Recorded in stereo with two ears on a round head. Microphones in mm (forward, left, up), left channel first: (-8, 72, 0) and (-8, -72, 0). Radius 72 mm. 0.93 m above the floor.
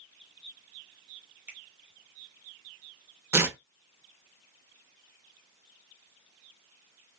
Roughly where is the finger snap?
Centre.